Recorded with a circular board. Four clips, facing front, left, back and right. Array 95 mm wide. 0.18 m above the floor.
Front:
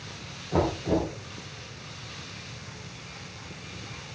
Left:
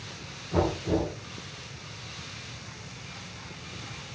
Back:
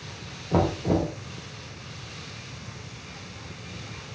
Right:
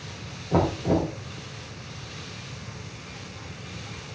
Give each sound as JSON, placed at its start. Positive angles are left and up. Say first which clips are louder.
{"t": 0.5, "sound": "knocking", "louder": "right 3 dB, back 2 dB", "azimuth_deg": -135, "distance_m": 3.0}